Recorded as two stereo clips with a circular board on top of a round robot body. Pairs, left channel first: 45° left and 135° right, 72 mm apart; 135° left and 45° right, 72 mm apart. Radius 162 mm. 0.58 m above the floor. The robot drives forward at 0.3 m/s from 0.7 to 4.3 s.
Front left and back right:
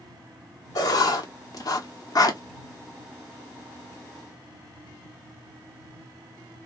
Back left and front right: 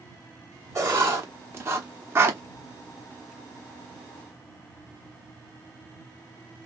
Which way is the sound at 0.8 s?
10° left.